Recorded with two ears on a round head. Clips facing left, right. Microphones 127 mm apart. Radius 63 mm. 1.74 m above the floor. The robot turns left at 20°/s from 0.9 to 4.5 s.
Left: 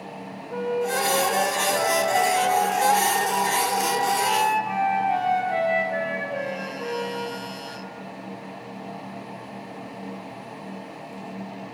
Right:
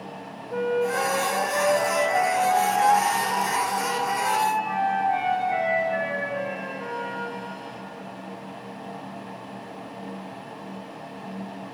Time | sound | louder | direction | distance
0.5 | a flute | right 1 dB | 170° right | 1.2 m